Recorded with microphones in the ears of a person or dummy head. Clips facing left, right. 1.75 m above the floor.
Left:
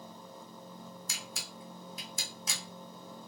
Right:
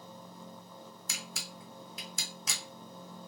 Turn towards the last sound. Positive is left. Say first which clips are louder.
# even
turn(degrees=-55)  # may be behind; listen again after turning